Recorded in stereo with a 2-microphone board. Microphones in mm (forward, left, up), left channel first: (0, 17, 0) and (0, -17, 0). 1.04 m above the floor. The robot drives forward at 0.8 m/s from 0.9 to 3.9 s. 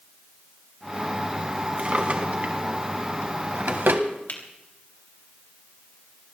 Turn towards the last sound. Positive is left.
turn(degrees=55)  # may be behind; listen again after turning